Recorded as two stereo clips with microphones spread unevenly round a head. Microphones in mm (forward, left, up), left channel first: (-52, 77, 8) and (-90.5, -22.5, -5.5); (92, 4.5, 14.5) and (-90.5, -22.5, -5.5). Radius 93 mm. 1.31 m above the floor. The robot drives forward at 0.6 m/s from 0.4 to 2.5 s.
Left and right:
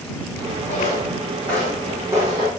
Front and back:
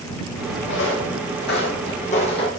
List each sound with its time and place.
0.7 s footsteps: 10° left, 3.5 m; by 2.5 s 50° right, 2.5 m